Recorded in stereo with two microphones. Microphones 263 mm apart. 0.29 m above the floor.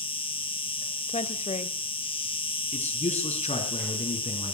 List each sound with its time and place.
0.0 s an insect: 20° left (ahead or behind), 0.9 m
1.1 s a woman speaking: 25° left (ahead or behind), 1.4 m
2.7 s a man speaking: 25° left (ahead or behind), 4 m